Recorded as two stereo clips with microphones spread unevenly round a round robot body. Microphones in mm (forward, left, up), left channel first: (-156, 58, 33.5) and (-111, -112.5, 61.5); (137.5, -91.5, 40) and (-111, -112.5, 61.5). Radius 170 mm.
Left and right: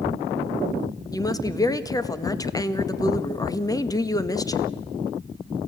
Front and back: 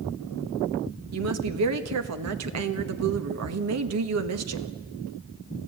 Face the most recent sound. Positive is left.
turn(degrees=170)